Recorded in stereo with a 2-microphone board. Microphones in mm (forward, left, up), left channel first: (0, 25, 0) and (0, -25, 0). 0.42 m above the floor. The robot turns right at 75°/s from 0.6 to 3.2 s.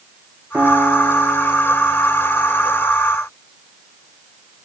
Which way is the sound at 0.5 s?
130° right.